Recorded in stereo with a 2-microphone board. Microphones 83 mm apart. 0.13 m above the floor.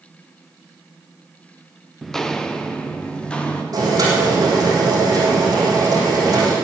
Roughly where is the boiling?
Right.